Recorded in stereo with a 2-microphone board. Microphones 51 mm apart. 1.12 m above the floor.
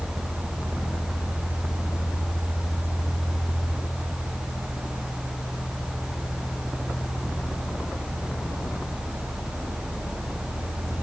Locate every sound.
Only background noise.